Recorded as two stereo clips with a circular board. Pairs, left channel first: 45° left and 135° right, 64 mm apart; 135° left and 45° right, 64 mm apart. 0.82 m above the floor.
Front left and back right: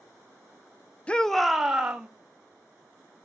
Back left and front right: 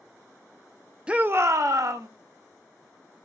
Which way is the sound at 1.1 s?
5° left.